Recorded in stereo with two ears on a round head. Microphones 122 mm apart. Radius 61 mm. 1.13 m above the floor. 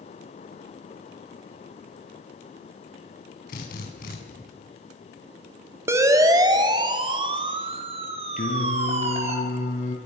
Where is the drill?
70° left (ahead or behind), 6 m.